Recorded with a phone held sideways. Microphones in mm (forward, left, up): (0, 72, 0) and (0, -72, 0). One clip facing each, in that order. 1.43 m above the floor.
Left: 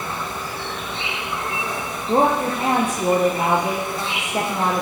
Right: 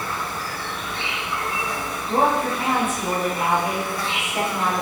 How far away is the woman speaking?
About 1.1 m.